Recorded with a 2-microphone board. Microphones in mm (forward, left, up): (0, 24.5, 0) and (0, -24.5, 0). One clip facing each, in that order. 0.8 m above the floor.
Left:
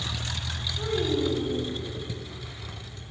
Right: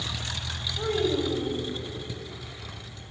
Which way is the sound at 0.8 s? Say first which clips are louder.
Right 1 dB; 65° right (ahead or behind).